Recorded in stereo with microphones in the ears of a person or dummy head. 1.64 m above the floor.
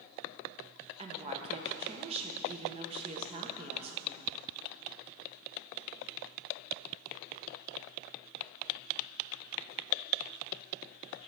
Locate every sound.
1.0 s a woman speaking: 25° right (ahead or behind), 0.8 m